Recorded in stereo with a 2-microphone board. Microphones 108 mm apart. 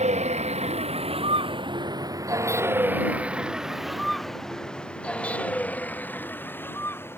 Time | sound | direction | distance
0.0 | a vehicle | 80° right | ?